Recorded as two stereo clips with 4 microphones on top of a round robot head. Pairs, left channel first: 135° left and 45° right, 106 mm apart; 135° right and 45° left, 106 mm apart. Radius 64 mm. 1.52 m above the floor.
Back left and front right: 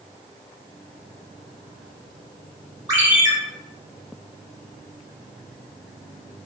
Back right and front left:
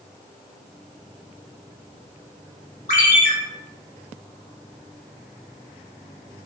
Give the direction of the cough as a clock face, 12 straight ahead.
No cough in this recording.